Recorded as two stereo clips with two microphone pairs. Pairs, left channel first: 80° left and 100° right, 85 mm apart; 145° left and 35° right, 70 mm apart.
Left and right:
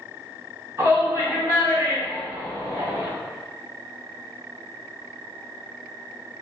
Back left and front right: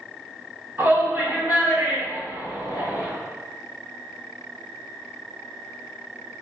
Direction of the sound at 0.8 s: 60° right.